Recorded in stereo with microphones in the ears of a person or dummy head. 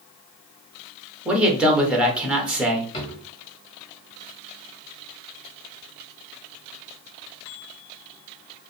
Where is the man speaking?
5° right (ahead or behind), 1.5 m.